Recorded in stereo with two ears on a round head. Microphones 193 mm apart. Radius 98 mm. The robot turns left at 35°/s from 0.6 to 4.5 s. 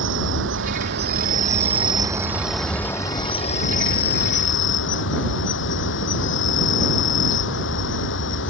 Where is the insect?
110° right; by 8.5 s 115° left.